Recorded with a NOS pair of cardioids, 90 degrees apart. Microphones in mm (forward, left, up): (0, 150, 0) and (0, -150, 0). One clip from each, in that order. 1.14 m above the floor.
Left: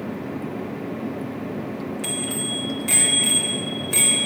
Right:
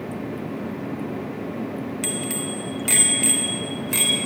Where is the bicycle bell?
60° right, 3 m; by 4.2 s 30° right, 3.5 m.